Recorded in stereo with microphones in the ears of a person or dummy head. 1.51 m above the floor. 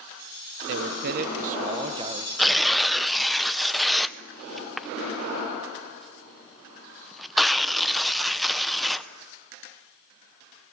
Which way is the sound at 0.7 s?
70° right (ahead or behind).